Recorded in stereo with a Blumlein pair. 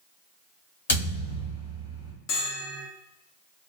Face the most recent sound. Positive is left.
turn(degrees=40)